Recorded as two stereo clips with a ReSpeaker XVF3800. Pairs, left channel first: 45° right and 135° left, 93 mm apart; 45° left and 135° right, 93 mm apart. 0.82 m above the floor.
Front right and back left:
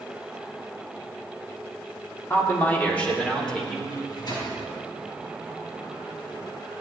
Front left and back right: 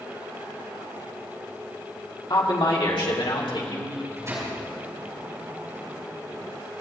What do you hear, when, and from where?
2.3 s a man speaking: 15° left, 2.5 m; by 3.8 s 40° left, 3.5 m
3.9 s a microwave: 80° right, 6 m